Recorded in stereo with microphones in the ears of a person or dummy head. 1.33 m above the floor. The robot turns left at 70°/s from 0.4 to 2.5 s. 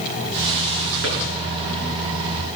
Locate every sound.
1.0 s a drawer: 65° right (ahead or behind), 8 m; by 1.2 s 55° right (ahead or behind), 8 m